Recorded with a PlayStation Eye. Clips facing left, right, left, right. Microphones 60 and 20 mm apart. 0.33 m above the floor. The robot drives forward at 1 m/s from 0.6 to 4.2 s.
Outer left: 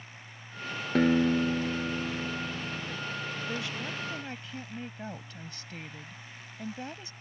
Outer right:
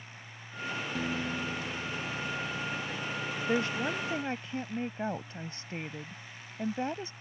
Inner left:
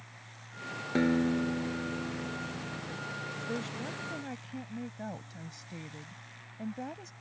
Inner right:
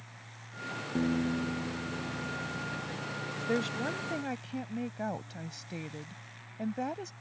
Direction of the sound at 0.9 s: 65° left (ahead or behind).